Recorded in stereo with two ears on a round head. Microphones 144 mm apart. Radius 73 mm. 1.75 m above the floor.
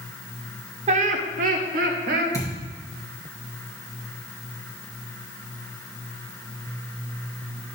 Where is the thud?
25° left (ahead or behind), 3 m.